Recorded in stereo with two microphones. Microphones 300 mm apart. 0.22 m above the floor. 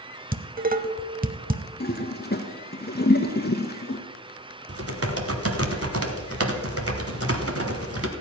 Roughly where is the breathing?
No breathing in this recording.